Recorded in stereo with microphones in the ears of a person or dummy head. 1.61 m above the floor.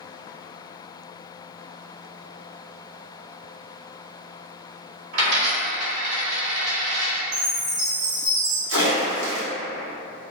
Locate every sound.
5.1 s a dropped coin: 55° right (ahead or behind), 1.7 m
7.3 s a chime: 70° right (ahead or behind), 1.7 m
8.7 s a splash: 85° right, 1.3 m